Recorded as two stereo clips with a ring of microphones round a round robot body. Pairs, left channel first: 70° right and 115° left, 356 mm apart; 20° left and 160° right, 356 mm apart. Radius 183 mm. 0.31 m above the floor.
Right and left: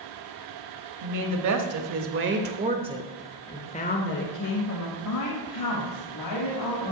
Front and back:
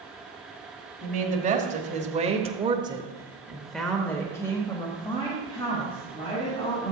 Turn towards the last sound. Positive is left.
turn(degrees=-50)